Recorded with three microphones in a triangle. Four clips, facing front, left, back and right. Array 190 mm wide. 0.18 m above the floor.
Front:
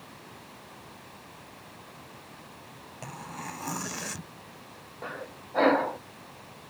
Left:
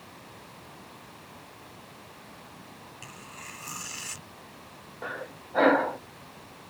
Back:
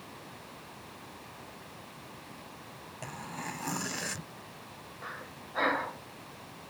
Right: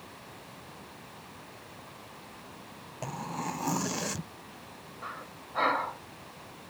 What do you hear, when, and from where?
3.0 s tearing paper: 90° right
5.0 s breathing: 55° left